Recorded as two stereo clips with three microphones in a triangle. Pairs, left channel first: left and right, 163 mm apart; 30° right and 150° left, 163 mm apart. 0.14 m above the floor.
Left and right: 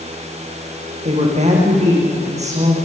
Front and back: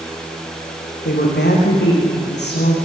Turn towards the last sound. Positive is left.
turn(degrees=-40)